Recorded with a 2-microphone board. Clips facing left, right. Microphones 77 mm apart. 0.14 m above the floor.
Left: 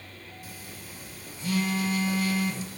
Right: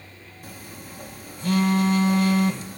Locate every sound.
0.4 s a phone buzzing: 55° right (ahead or behind), 1.4 m